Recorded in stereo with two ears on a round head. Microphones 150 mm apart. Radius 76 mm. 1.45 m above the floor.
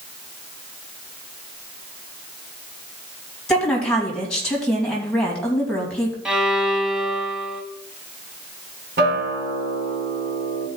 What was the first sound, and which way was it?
A woman speaking, 5° left (ahead or behind).